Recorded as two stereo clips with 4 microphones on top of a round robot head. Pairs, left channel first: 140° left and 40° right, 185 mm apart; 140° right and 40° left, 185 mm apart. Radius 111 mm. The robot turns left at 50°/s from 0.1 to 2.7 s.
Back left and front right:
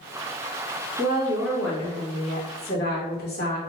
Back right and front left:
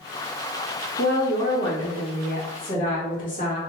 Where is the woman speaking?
100° right, 1.4 m; by 3.6 s 175° left, 1.4 m.